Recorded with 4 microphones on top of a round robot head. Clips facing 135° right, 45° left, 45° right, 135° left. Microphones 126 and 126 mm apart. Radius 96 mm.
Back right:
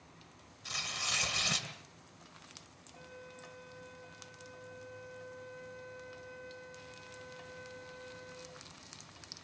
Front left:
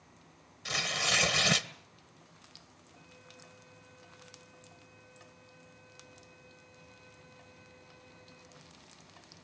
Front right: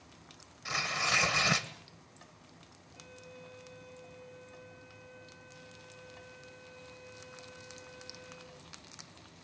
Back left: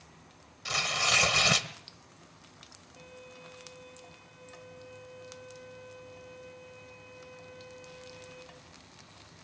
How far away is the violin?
About 5 m.